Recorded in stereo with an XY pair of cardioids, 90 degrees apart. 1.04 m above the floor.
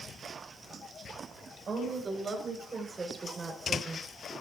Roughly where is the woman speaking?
Ahead right.